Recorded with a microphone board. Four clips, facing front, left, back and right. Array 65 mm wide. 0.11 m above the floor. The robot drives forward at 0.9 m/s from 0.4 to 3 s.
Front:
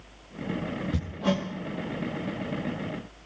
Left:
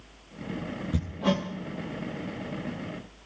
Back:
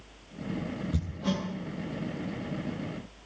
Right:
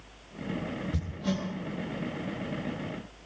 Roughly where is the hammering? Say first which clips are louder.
Left 10 dB, front 5 dB; ahead left.